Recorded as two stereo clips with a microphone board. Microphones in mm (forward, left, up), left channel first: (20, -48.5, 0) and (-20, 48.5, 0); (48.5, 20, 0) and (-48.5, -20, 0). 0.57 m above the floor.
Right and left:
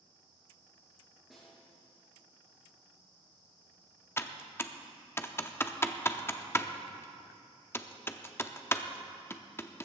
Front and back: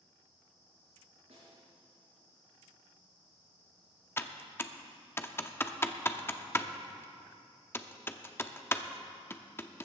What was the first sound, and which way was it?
A snare drum, 160° right.